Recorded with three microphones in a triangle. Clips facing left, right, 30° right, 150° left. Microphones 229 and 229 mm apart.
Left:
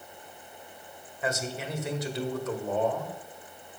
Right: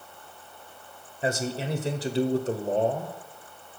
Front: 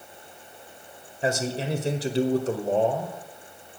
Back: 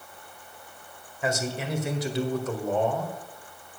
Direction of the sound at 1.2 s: 60° right.